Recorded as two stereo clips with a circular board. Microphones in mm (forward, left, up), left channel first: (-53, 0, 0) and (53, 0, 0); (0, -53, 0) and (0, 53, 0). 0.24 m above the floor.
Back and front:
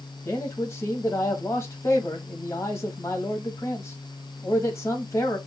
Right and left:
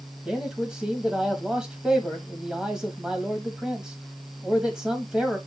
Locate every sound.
0.2 s a man speaking: 165° left, 1.3 m